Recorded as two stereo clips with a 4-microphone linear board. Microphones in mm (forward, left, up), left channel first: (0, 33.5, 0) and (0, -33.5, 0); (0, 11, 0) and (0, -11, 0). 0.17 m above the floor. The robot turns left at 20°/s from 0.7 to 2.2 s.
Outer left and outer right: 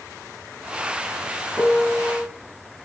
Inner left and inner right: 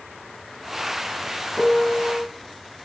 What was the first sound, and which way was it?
A piano, 10° left (ahead or behind).